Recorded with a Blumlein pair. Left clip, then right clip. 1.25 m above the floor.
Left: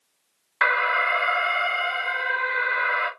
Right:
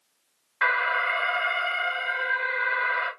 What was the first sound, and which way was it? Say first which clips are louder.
An alarm: left 3 dB; 25° left.